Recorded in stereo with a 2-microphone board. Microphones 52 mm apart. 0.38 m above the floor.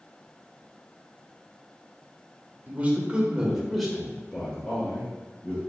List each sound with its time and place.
2.7 s a man speaking: 35° right (ahead or behind), 0.9 m; by 5.6 s 25° left (ahead or behind), 1.7 m